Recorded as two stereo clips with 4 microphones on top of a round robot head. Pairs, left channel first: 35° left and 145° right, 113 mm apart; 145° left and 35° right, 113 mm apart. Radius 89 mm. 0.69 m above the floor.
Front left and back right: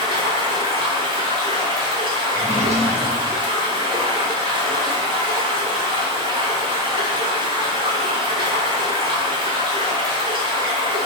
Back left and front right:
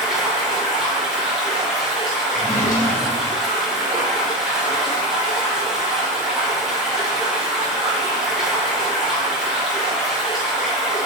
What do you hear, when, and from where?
0.0 s running water: 120° right, 0.9 m
2.3 s a drawer: 160° right, 1.0 m